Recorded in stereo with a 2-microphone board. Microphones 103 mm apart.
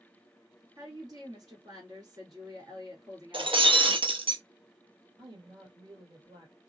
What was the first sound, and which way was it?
A woman speaking, 40° right (ahead or behind).